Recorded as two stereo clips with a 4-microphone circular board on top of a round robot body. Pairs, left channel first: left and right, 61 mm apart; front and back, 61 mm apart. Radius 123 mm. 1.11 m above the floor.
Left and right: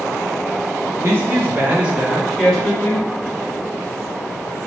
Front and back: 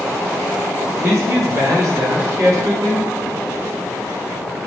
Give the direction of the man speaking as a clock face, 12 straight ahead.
5 o'clock.